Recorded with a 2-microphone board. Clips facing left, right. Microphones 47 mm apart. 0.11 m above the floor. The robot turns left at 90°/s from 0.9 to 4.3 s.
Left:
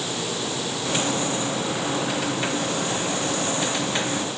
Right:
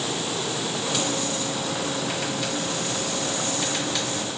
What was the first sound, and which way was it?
Only background noise.